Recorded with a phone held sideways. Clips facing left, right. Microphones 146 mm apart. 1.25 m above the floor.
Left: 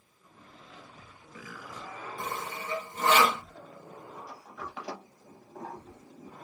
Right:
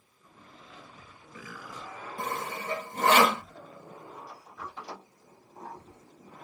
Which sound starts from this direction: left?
A sliding door, at 4.2 s.